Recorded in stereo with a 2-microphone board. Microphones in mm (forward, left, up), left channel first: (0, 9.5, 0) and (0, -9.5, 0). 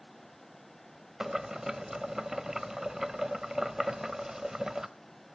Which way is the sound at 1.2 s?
25° right (ahead or behind).